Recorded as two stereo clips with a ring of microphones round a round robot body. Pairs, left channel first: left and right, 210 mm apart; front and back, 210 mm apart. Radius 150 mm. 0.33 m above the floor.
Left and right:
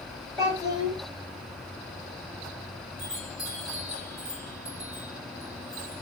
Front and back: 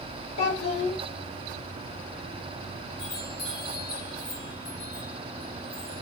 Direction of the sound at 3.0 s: 5° right.